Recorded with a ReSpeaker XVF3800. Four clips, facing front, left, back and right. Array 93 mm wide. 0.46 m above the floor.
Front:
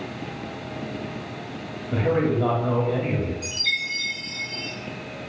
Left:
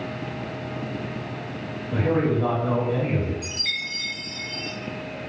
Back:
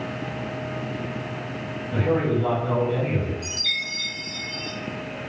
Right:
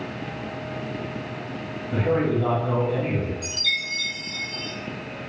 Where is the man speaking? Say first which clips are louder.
Even, front 1 dB; 10° left, 1.4 m.